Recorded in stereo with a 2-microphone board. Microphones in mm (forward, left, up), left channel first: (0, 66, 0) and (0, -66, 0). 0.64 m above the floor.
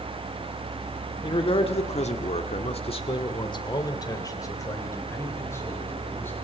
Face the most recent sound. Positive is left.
turn(degrees=20)  # may be behind; listen again after turning